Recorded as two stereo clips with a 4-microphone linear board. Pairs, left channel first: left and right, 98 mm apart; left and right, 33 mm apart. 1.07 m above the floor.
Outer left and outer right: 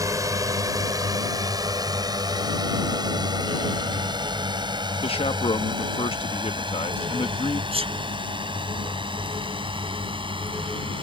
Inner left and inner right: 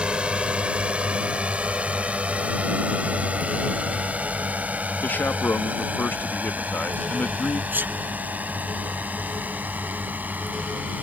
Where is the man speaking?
75° left (ahead or behind).